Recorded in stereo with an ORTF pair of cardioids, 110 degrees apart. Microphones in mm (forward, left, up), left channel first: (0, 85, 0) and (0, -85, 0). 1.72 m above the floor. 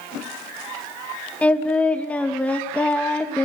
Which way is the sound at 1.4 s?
10° left.